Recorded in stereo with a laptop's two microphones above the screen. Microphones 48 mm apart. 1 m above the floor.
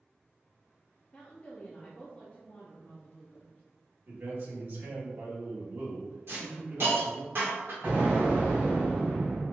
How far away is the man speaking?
About 1.3 m.